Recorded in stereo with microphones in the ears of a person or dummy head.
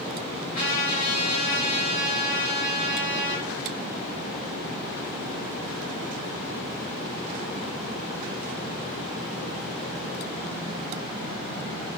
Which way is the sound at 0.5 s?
45° left (ahead or behind).